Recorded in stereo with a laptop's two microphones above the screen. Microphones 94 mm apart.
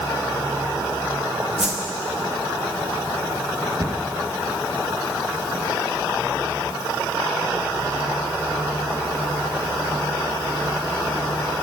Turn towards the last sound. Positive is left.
turn(degrees=-35)  # may be behind; listen again after turning